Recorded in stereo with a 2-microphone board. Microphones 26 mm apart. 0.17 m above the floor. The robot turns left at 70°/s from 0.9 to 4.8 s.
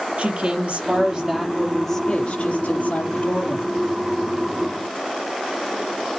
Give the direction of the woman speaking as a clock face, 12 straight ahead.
4 o'clock.